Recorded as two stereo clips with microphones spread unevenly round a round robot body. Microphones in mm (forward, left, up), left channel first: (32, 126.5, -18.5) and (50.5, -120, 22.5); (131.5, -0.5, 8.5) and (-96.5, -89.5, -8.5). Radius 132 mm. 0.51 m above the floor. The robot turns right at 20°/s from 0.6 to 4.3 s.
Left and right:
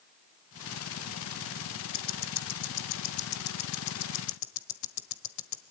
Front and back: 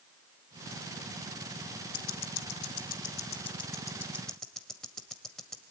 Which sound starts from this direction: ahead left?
Ticking, at 1.9 s.